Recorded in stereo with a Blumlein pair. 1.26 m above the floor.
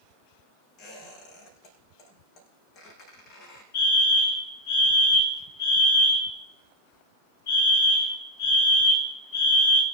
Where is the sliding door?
No sliding door in this recording.